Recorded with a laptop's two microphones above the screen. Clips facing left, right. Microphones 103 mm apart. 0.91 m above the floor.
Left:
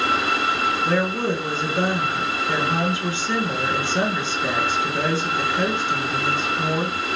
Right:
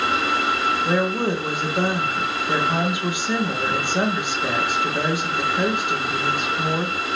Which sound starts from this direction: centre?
A woman speaking, at 0.8 s.